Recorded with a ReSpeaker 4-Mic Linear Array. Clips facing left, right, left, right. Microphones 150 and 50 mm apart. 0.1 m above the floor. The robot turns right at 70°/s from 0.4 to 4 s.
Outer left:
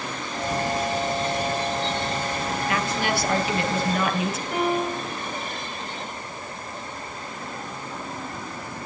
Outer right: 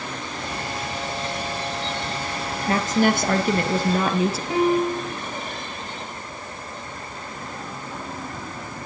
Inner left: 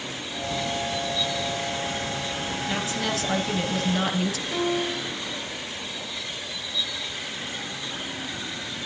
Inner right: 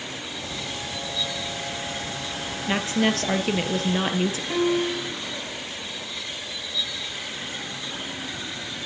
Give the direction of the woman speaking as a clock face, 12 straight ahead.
5 o'clock.